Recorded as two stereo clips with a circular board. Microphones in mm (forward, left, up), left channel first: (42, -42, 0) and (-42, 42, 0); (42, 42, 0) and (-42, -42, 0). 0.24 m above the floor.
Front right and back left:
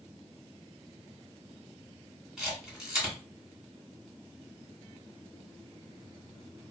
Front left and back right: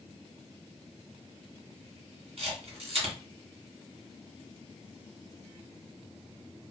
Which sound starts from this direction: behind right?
A camera shutter, at 2.4 s.